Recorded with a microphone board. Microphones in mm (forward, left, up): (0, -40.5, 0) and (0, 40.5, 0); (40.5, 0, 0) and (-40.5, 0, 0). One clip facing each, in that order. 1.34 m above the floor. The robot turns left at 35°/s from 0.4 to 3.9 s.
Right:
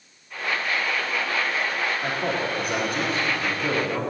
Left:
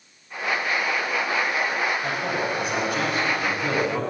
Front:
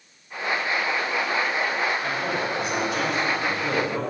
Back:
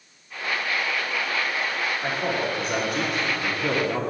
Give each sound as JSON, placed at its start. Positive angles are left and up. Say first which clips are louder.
{"t": 2.0, "sound": "a man speaking", "louder": "even, back 1 dB", "azimuth_deg": -110, "distance_m": 3.5}